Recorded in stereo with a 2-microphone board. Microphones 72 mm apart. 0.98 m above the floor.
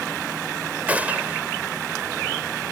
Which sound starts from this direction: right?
A gunshot, at 0.9 s.